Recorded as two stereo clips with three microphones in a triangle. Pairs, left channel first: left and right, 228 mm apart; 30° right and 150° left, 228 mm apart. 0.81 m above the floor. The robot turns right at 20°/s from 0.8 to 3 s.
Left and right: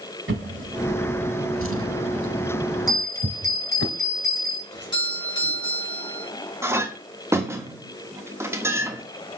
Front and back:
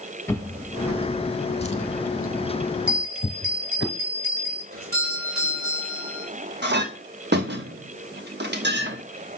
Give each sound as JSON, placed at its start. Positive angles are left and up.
{"t": 0.3, "sound": "a drawer", "azimuth_deg": -110, "distance_m": 1.1}
{"t": 2.9, "sound": "a bell", "azimuth_deg": 165, "distance_m": 3.0}
{"t": 4.7, "sound": "a doorbell", "azimuth_deg": 160, "distance_m": 4.5}
{"t": 6.6, "sound": "a clink", "azimuth_deg": -165, "distance_m": 1.1}